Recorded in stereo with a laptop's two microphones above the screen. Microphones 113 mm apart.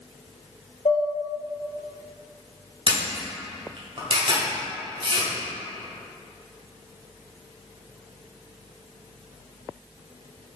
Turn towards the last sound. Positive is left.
turn(degrees=-50)  # may be behind; listen again after turning